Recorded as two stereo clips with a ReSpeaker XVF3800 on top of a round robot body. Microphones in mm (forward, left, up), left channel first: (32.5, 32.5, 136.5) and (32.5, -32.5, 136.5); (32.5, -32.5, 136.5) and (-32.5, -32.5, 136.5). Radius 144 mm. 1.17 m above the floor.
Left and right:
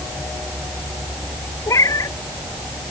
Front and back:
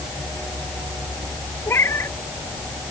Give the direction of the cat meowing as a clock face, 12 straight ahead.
10 o'clock.